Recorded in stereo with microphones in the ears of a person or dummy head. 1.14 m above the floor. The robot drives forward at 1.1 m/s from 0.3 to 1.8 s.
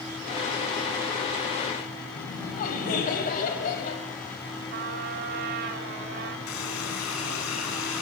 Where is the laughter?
50° left (ahead or behind), 6.5 m.